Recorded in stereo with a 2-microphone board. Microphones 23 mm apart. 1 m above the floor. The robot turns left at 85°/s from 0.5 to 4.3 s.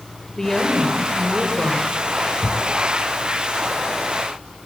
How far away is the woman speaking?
About 3.5 m.